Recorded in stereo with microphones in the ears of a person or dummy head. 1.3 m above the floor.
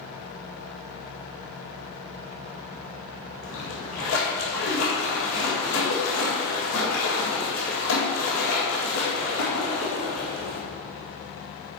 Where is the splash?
70° left (ahead or behind), 1.9 m.